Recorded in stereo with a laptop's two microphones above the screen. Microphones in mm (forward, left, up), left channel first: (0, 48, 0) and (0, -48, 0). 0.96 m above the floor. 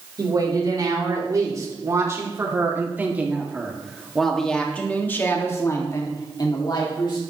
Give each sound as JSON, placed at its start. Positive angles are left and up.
{"t": 0.2, "sound": "a woman speaking", "side_deg": -45, "distance_m": 4.0}